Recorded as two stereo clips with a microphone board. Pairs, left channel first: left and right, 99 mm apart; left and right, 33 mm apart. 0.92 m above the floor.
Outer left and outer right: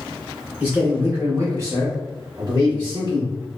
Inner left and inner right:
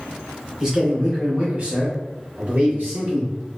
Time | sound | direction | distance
0.6 | a man speaking | 15° right (ahead or behind) | 1.4 m